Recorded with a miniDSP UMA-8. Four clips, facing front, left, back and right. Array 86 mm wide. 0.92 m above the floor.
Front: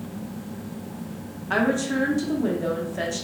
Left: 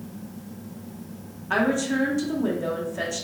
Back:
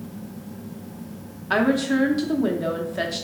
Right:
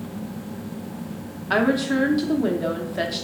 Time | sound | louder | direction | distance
1.5 | a woman speaking | right 3 dB, back 3 dB | 125° right | 0.5 m